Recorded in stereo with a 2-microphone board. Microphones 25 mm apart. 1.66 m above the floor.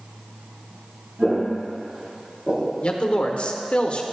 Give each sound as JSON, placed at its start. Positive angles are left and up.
{"t": 1.2, "sound": "footsteps", "side_deg": -40, "distance_m": 2.0}
{"t": 2.8, "sound": "a man speaking", "side_deg": 50, "distance_m": 1.0}